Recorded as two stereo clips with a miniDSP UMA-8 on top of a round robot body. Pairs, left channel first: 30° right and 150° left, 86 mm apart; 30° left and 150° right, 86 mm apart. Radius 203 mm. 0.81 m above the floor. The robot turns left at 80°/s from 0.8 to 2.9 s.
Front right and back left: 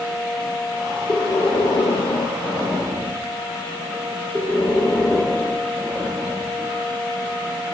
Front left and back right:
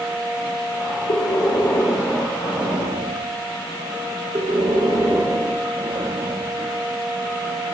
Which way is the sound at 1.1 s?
25° left.